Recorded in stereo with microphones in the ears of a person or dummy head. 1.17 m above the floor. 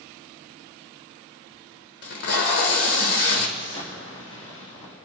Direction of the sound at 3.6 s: 30° left (ahead or behind).